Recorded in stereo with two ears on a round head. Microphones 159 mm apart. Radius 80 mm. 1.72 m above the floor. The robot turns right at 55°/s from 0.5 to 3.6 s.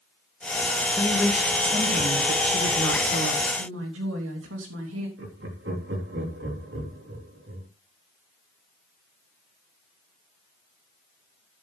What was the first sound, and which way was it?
A woman speaking, 160° left.